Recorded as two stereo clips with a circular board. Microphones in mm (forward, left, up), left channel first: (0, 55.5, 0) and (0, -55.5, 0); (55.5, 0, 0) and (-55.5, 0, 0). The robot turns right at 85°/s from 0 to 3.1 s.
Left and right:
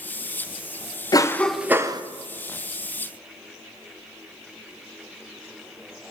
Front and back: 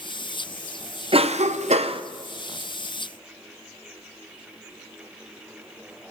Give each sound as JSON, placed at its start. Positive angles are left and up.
{"t": 1.1, "sound": "a cough", "azimuth_deg": 145, "distance_m": 0.7}